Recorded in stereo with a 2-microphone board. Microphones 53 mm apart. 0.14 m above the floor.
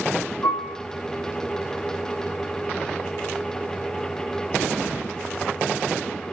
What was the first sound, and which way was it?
A piano, 55° left (ahead or behind).